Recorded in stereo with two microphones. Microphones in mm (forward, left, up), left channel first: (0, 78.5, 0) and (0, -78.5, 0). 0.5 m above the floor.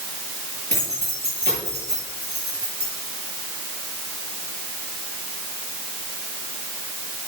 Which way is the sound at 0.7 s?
85° right.